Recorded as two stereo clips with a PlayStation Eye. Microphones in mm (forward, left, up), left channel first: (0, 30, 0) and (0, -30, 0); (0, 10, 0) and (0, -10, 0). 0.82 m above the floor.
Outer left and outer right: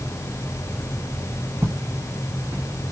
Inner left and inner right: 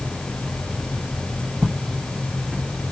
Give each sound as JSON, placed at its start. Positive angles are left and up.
{"t": 1.6, "sound": "footsteps", "side_deg": -50, "distance_m": 2.5}